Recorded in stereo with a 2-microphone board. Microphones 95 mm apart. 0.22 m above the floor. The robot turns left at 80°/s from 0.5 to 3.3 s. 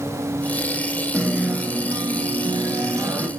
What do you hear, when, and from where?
1.1 s a guitar: 5° left, 0.5 m; by 3.3 s 165° right, 0.5 m